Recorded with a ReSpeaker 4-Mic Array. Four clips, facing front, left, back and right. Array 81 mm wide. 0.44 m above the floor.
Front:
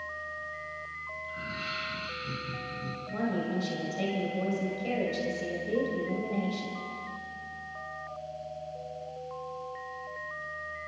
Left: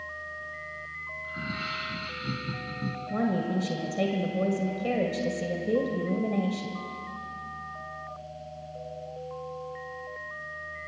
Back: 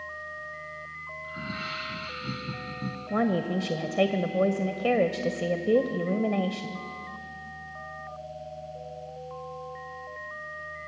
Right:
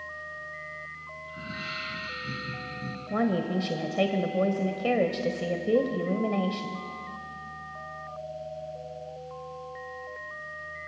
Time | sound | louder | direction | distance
1.2 | laughter | left 3 dB, back 3 dB | 140° left | 3.5 m
3.1 | a woman speaking | right 1 dB, back 5 dB | 155° right | 1.8 m